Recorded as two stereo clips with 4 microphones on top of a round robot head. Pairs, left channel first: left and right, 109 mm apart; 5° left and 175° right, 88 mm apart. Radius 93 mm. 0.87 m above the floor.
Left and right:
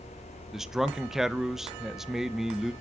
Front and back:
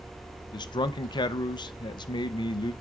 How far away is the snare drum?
I don't hear a snare drum.